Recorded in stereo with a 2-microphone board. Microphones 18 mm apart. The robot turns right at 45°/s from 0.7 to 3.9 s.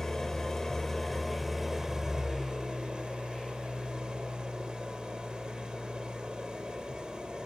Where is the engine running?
145° left, 2.5 m; by 7.5 s 70° right, 2.5 m.